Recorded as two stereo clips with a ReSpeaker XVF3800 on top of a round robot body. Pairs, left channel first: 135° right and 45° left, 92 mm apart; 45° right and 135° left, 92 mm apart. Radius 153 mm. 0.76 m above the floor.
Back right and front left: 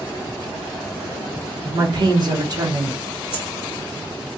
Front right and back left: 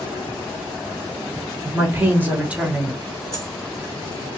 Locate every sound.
1.6 s a woman speaking: 70° left, 1.5 m; by 3.0 s 50° left, 0.9 m
3.3 s a dropped coin: 80° left, 1.3 m